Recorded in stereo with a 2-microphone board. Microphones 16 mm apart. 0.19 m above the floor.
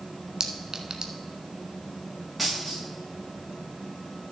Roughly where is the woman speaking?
I don't hear a woman speaking.